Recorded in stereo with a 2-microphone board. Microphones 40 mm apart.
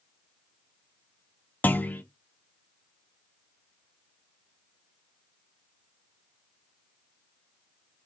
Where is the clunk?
45° left (ahead or behind), 0.5 m.